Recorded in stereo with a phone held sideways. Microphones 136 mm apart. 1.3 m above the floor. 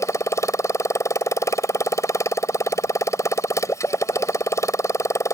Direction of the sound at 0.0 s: 25° left (ahead or behind).